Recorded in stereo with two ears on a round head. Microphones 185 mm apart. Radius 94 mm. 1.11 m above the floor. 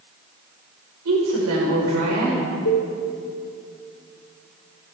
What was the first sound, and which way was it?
A woman speaking, 80° right.